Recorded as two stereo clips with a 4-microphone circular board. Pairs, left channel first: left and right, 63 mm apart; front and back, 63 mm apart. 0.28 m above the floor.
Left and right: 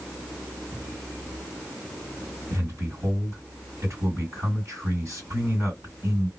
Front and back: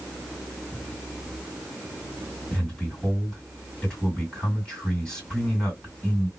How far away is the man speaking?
About 2.5 m.